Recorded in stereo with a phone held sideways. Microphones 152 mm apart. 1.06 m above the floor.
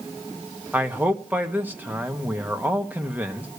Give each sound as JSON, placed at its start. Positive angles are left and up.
{"t": 0.7, "sound": "a man speaking", "side_deg": -15, "distance_m": 1.5}